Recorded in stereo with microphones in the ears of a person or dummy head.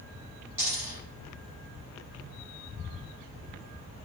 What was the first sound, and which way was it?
A dropped coin, 15° right (ahead or behind).